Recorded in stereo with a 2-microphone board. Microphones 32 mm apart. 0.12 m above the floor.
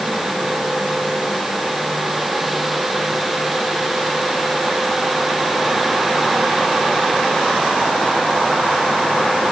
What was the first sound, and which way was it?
Only background noise.